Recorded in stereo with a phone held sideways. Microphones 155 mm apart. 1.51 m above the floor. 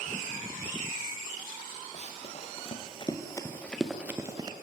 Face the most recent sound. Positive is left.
turn(degrees=-30)  # may be behind; listen again after turning